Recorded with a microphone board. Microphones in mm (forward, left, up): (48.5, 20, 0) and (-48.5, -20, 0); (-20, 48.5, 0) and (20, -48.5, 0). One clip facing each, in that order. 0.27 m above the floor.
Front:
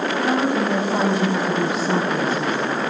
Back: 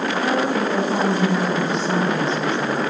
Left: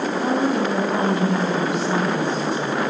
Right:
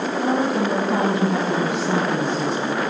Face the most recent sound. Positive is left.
turn(degrees=-55)